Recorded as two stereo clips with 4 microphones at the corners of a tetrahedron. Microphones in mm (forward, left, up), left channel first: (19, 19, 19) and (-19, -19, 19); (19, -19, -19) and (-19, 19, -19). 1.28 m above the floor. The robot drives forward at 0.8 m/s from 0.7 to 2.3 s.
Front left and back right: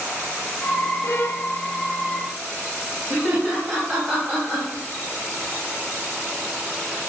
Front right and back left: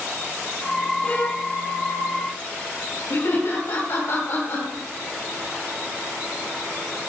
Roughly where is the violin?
Ahead.